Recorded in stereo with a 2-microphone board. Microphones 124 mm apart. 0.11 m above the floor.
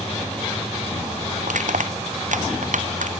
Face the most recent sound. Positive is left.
turn(degrees=-85)